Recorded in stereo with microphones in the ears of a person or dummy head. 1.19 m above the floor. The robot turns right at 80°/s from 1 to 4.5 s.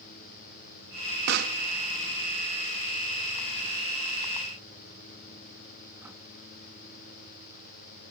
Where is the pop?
70° right (ahead or behind); by 6.2 s 10° right (ahead or behind).